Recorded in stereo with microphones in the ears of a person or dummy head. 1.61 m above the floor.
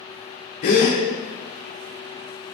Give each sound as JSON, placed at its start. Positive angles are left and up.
{"t": 0.6, "sound": "a gasp", "side_deg": 25, "distance_m": 0.9}